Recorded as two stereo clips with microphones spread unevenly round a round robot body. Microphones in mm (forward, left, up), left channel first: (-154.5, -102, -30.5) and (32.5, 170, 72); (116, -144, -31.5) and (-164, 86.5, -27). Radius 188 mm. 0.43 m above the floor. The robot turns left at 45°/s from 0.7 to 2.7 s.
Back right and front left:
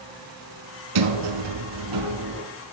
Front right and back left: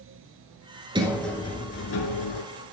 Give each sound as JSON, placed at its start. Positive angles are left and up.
{"t": 0.9, "sound": "a sliding door", "azimuth_deg": 60, "distance_m": 1.2}